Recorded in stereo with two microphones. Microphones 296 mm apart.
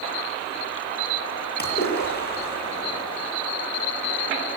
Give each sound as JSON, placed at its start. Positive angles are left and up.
{"t": 1.6, "sound": "a splash", "side_deg": 35, "distance_m": 8.5}